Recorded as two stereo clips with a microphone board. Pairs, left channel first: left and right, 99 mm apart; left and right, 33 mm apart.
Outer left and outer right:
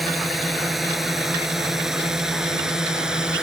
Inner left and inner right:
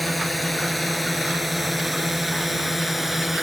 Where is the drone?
Centre (ahead or behind); by 3.4 s 10° right (ahead or behind).